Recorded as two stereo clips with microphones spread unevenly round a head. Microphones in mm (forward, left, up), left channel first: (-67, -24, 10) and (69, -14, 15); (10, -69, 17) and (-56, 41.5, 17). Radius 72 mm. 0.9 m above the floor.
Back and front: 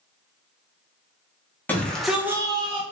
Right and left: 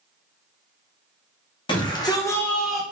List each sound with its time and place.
1.7 s a shout: 100° right, 1.2 m; by 2.8 s 35° left, 0.9 m